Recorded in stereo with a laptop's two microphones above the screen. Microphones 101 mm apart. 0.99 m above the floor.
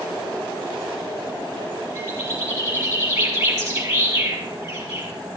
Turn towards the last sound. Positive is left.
turn(degrees=-40)  # may be behind; listen again after turning